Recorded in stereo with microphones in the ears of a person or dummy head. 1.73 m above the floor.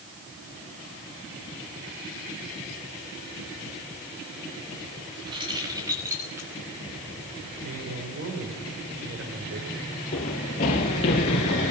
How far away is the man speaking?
About 6 m.